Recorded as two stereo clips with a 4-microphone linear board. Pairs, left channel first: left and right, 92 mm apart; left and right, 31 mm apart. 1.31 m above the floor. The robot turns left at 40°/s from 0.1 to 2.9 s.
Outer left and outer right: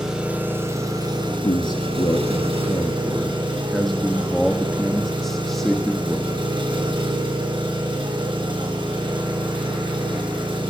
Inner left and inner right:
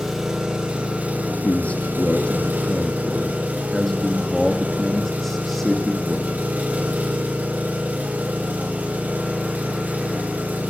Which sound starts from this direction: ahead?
An engine running, at 0.0 s.